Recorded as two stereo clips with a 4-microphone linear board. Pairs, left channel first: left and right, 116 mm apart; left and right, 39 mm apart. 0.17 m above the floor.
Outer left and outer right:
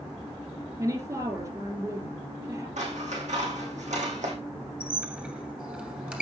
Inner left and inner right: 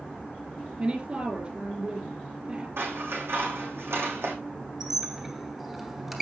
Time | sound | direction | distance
0.8 | a woman speaking | 30° right (ahead or behind) | 4 m
2.8 | scissors | 85° right | 3.5 m
4.8 | a squeak | 10° right (ahead or behind) | 2 m